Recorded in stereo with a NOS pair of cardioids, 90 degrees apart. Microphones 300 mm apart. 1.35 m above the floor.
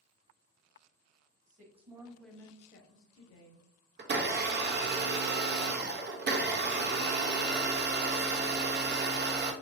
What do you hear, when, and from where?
1.5 s a woman speaking: 25° right, 1.3 m; by 3.7 s 70° left, 1.1 m
4.0 s a blender: 40° right, 0.6 m